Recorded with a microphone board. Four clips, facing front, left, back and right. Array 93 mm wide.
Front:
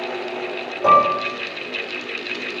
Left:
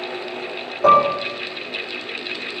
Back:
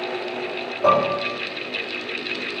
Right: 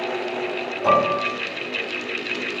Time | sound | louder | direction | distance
0.8 | dishes clattering | left 4 dB, front 4 dB | 115° left | 1.8 m